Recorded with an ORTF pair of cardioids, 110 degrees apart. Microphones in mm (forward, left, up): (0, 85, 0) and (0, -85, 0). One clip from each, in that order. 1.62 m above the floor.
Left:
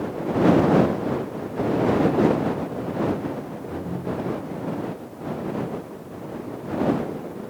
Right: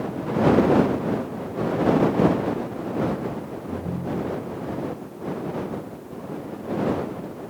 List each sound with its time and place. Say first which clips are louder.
3.7 s a ringtone: even; 25° right